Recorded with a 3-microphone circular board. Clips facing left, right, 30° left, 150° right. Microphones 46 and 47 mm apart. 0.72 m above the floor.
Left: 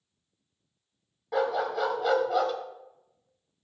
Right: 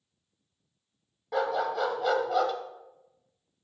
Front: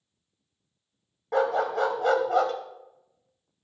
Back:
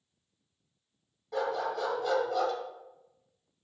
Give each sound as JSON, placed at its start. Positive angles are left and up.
{"t": 1.3, "sound": "a dog barking", "azimuth_deg": 0, "distance_m": 0.9}